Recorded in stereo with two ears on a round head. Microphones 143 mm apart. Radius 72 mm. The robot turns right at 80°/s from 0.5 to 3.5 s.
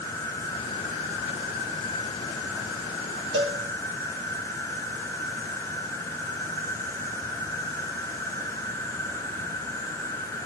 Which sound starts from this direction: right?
A cowbell, at 3.3 s.